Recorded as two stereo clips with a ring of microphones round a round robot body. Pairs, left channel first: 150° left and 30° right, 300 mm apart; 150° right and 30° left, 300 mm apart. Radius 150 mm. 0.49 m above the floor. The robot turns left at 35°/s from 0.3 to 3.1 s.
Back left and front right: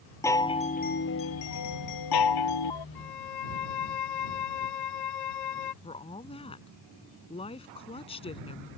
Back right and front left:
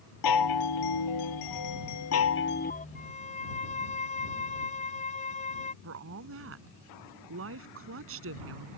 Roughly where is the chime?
Behind right.